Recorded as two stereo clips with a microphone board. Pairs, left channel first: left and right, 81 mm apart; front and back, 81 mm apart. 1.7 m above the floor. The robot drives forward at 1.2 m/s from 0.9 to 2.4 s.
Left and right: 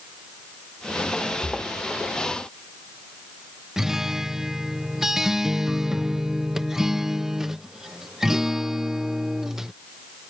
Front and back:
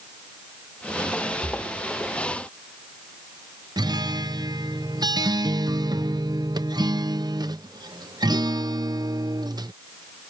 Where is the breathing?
170° left.